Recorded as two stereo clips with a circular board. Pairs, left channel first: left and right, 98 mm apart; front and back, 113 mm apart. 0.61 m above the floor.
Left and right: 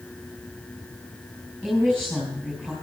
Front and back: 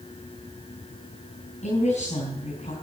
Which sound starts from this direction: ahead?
A woman speaking, at 1.6 s.